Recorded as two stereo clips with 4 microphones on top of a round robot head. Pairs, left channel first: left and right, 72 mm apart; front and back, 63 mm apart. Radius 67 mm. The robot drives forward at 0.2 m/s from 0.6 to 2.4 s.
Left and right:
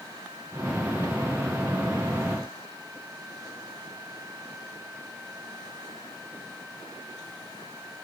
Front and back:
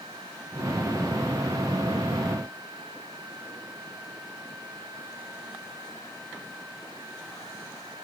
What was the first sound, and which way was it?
Only background noise.